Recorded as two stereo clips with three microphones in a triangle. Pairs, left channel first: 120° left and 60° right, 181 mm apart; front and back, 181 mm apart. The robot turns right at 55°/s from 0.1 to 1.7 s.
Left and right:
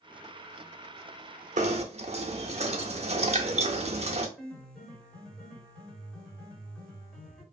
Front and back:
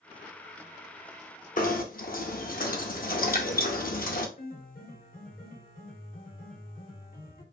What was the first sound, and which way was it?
Knocking, 25° right.